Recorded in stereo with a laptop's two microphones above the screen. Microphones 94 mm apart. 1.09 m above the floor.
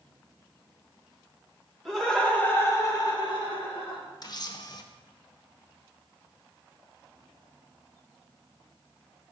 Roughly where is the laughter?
Centre.